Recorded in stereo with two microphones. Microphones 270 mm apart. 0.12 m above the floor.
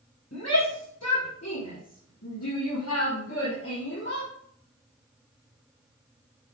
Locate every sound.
0.3 s a shout: 70° left (ahead or behind), 5.5 m; by 4.3 s 40° left (ahead or behind), 2.5 m